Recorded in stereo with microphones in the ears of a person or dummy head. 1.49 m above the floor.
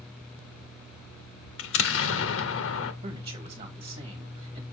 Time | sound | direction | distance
1.6 | an explosion | 80° left | 1.0 m
3.0 | a man speaking | 35° right (ahead or behind) | 2.0 m